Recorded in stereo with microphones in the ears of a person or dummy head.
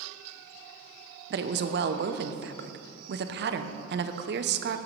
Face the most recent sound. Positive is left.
turn(degrees=-50)  # may be behind; listen again after turning